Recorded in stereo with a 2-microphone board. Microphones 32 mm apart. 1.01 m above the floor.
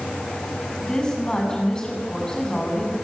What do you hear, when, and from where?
0.8 s a woman speaking: 25° left (ahead or behind), 7.5 m